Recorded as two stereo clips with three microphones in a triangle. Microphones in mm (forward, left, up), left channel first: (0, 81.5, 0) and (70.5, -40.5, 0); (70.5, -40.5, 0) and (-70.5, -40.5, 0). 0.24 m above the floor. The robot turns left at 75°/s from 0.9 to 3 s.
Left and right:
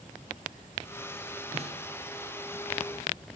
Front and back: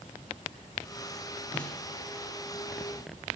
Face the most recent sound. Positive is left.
turn(degrees=175)